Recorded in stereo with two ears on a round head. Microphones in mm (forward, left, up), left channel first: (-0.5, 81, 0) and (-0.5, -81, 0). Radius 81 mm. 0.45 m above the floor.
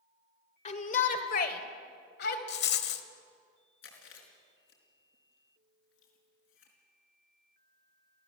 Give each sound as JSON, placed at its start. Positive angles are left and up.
{"t": 0.7, "sound": "a shout", "side_deg": 40, "distance_m": 1.7}
{"t": 2.5, "sound": "a rattle", "side_deg": 60, "distance_m": 1.3}
{"t": 3.8, "sound": "chewing", "side_deg": 80, "distance_m": 4.5}